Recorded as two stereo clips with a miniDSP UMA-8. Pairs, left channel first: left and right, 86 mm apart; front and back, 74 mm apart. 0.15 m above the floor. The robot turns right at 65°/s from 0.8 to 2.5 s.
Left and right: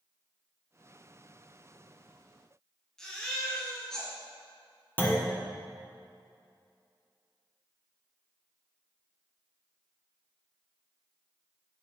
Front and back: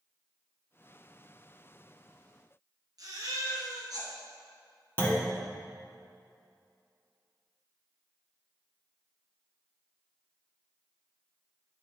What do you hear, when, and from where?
3.0 s a baby crying: 170° left, 2 m
5.0 s a clunk: 40° left, 1.4 m